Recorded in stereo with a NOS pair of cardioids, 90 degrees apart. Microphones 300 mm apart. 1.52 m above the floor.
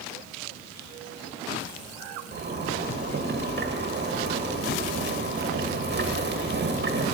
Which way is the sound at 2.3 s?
35° right.